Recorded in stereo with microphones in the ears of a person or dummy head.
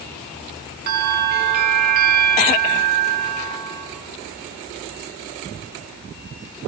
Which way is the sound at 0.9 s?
55° right (ahead or behind).